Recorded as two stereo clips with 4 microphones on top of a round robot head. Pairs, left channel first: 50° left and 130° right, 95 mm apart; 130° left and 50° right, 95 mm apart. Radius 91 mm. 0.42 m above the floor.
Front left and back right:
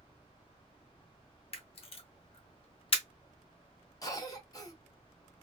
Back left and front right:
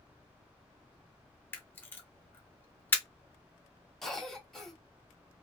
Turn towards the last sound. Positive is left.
turn(degrees=45)